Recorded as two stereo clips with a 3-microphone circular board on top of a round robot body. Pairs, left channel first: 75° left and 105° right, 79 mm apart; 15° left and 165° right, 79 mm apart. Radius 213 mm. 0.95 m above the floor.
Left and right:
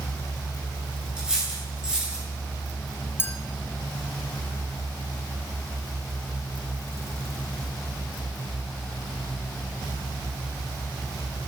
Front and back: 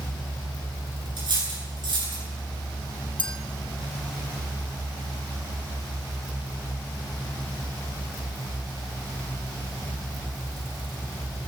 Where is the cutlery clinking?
175° left, 9.5 m.